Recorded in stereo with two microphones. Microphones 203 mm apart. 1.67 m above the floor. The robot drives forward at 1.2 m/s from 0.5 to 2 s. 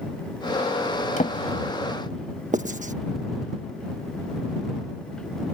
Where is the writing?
35° right (ahead or behind).